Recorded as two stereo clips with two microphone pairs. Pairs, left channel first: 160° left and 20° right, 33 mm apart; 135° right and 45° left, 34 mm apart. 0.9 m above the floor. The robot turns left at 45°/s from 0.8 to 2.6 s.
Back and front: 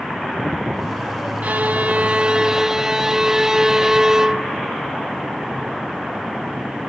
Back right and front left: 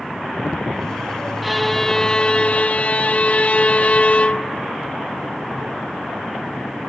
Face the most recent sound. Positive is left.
turn(degrees=-90)